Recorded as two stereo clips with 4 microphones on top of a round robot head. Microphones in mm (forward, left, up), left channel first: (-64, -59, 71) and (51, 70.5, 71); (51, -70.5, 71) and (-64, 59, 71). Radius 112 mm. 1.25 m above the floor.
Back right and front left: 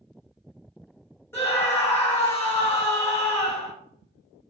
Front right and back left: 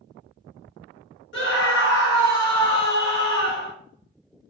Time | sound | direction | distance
1.3 | a scream | 55° right | 2.5 m